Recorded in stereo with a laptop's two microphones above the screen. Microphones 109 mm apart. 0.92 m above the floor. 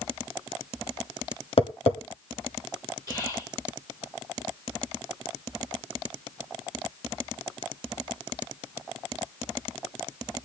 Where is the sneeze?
No sneeze in this recording.